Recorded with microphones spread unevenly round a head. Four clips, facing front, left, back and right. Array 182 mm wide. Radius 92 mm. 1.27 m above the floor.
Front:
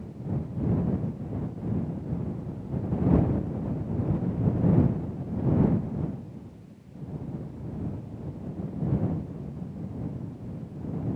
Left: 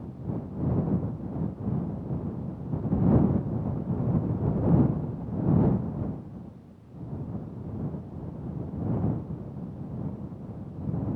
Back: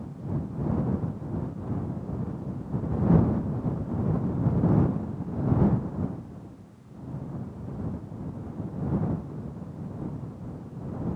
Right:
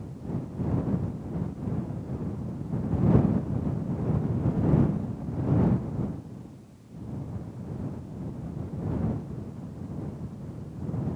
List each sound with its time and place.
Only background noise.